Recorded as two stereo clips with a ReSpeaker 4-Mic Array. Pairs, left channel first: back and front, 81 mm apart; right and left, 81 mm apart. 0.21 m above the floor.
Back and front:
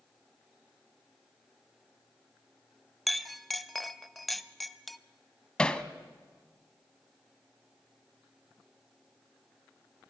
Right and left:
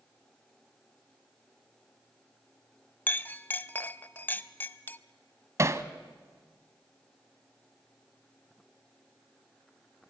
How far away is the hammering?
About 0.9 m.